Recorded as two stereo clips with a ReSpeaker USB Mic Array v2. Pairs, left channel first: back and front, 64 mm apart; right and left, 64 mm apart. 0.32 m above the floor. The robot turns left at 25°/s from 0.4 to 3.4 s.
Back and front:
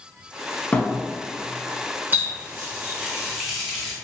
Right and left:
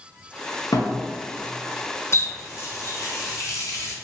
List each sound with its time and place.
0.7 s a thud: 110° right, 0.6 m; by 1.0 s 115° right, 0.6 m
2.1 s a running tap: 55° right, 0.9 m; by 3.9 s 90° right, 0.9 m